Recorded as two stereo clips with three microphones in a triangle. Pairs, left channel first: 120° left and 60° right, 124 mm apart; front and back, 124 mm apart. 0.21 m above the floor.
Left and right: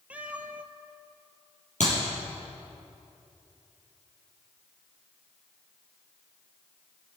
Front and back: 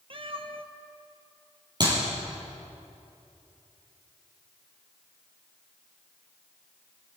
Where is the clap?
125° left, 5.5 m.